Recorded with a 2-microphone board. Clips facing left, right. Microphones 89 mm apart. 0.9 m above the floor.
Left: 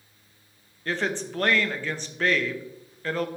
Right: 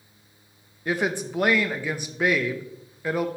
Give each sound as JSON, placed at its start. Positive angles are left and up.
{"t": 0.8, "sound": "a woman speaking", "side_deg": -10, "distance_m": 0.5}